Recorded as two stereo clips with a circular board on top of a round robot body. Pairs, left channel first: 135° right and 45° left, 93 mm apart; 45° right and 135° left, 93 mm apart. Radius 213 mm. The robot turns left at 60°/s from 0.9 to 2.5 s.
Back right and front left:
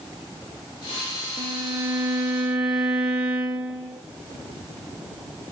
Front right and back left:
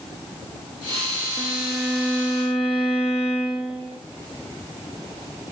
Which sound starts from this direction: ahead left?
A violin, at 1.4 s.